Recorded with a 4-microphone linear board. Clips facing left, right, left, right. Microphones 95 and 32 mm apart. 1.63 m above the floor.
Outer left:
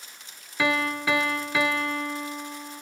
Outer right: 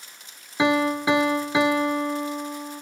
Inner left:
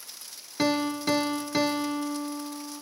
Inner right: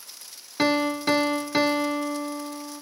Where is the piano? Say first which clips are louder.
Outer right 5 dB, inner right 3 dB; 20° right (ahead or behind), 0.5 m.